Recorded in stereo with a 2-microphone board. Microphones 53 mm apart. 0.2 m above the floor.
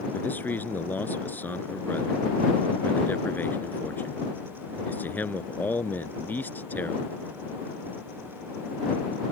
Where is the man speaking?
35° left (ahead or behind).